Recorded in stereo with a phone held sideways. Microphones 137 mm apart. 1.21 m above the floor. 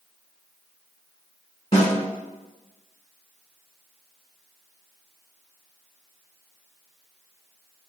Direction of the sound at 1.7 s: 50° left (ahead or behind).